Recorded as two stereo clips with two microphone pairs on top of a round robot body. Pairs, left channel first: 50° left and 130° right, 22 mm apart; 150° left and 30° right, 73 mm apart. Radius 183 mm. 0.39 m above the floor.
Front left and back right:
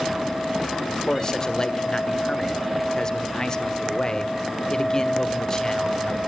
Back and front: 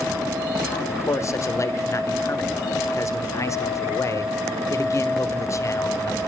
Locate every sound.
0.9 s a man speaking: 115° left, 1.8 m